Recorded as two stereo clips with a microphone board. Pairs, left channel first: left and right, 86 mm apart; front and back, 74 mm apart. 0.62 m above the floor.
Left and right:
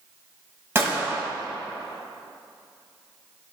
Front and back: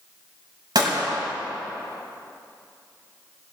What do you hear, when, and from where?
0.8 s a gunshot: 150° right, 2.5 m